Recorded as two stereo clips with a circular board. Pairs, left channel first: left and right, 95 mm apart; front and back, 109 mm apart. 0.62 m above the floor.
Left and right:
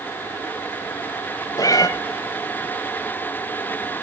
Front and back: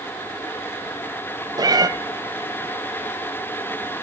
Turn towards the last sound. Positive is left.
turn(degrees=130)